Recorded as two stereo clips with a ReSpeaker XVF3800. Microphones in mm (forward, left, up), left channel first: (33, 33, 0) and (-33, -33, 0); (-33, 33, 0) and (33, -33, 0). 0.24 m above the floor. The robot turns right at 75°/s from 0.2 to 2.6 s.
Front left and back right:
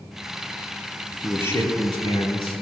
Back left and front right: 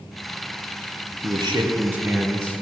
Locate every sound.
1.2 s a man speaking: 30° right, 3.5 m; by 2.6 s 70° left, 3.5 m